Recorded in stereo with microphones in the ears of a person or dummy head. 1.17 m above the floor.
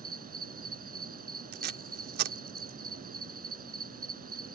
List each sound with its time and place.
0.0 s an insect: 40° right (ahead or behind)
1.5 s tape being pulled: 50° right (ahead or behind)